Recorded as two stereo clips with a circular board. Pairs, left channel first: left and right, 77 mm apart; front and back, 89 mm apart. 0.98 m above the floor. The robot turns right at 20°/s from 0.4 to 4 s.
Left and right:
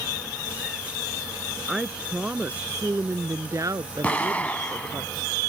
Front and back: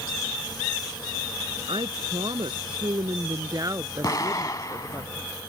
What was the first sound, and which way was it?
A woman speaking, 170° right.